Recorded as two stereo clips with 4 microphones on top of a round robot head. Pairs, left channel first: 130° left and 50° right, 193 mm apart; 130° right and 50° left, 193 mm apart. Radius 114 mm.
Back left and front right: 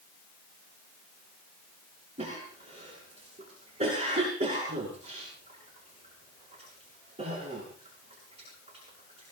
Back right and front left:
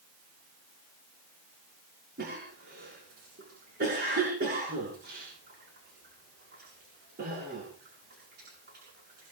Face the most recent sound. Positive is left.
turn(degrees=10)